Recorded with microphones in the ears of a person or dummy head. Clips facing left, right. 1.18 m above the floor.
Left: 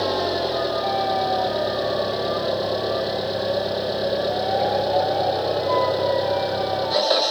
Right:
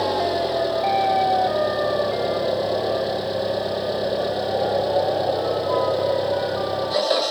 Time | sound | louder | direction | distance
0.0 | an engine running | right 1 dB | centre (ahead or behind) | ?